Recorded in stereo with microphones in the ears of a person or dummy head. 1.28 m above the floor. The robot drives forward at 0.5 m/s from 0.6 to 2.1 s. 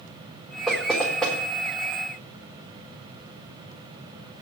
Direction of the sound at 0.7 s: Centre (ahead or behind).